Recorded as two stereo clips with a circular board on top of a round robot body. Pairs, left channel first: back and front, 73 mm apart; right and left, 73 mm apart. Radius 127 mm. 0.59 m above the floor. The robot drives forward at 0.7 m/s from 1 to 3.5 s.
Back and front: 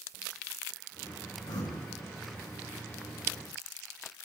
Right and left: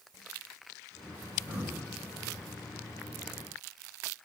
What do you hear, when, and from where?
1.5 s breathing: 150° left, 5.5 m; by 1.8 s 155° left, 5.5 m